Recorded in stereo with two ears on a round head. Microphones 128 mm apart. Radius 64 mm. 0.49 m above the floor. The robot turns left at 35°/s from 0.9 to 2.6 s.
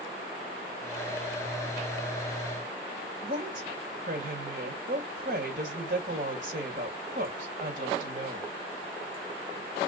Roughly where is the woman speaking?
Right.